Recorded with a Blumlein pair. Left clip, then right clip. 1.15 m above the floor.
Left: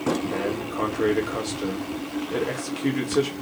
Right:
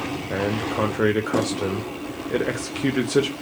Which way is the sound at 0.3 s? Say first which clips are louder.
Right 3 dB; 40° right.